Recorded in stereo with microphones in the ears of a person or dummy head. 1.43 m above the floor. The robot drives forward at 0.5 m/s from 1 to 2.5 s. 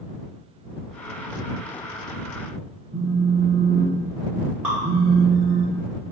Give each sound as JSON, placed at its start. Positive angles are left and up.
{"t": 2.9, "sound": "a phone buzzing", "side_deg": -25, "distance_m": 1.8}
{"t": 4.6, "sound": "dripping", "side_deg": -10, "distance_m": 2.5}